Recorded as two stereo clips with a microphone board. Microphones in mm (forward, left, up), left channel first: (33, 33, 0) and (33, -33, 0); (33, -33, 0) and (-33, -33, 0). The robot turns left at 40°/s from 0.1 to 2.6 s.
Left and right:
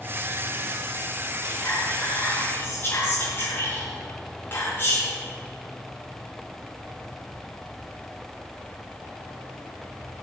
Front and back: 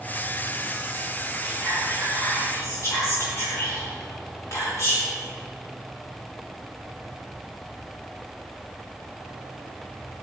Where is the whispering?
85° left, 2.5 m; by 5.2 s 40° left, 2.5 m.